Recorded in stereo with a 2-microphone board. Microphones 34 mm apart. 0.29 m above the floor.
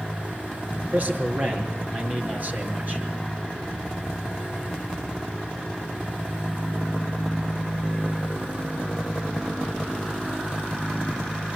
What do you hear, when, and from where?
0.8 s a man speaking: 45° right (ahead or behind), 4.5 m